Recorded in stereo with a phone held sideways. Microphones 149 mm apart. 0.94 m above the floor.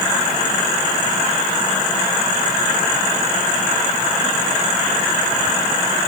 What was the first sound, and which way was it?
Only background noise.